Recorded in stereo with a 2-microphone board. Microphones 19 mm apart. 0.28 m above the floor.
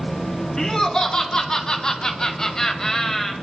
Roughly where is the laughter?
Left.